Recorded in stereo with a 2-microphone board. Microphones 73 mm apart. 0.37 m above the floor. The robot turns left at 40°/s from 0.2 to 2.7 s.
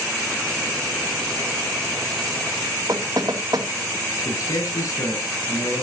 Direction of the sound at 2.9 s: 65° right (ahead or behind).